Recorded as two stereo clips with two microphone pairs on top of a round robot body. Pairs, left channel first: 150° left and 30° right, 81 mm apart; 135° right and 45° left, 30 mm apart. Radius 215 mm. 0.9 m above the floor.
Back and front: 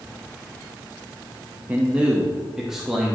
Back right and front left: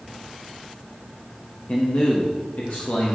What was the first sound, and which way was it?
A man speaking, 95° right.